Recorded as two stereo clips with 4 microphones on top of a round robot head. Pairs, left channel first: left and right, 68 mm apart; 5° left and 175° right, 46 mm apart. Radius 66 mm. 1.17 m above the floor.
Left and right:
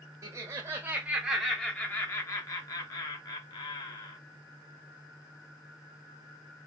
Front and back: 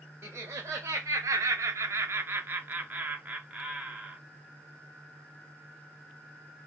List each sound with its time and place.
0.2 s laughter: 135° right, 0.9 m; by 4.2 s 115° left, 1.7 m